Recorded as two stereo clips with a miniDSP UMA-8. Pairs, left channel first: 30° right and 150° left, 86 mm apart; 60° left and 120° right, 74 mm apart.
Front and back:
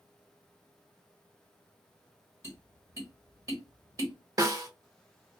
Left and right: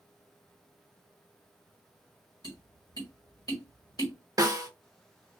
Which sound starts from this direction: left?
Tapping, at 2.4 s.